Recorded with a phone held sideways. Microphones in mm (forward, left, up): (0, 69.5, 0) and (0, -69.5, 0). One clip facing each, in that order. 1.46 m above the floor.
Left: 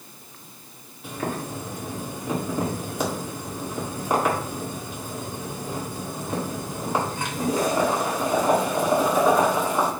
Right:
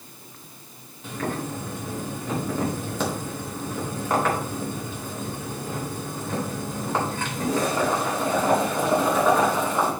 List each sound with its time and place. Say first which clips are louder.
1.0 s boiling: even; 15° left (ahead or behind), 2 m